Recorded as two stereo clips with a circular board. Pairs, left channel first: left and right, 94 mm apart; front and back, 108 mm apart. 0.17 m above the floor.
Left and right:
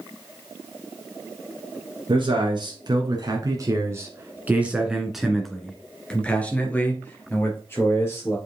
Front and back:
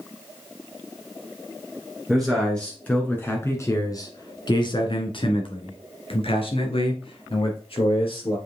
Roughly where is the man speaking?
Right.